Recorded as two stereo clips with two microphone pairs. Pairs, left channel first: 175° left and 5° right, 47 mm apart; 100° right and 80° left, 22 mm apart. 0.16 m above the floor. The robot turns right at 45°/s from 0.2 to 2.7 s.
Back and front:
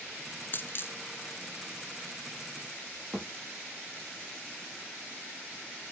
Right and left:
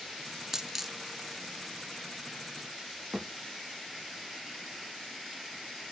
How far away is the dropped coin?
About 0.8 m.